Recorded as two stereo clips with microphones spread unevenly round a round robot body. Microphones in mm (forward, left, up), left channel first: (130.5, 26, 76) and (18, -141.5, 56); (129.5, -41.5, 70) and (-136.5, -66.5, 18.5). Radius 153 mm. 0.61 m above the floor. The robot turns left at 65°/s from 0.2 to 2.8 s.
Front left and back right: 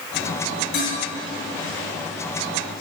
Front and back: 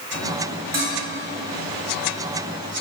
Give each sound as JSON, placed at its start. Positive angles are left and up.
{"t": 0.7, "sound": "dishes clattering", "azimuth_deg": 105, "distance_m": 3.0}